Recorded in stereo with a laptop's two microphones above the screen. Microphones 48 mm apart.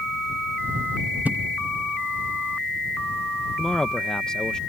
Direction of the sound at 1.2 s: 35° right (ahead or behind).